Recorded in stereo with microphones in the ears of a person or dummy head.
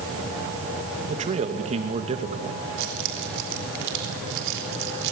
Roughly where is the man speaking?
Right.